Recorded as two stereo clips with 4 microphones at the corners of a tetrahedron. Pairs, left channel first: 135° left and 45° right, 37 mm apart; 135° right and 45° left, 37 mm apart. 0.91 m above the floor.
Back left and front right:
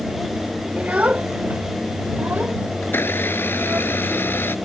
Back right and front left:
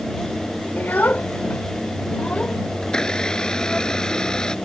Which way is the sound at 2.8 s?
155° left.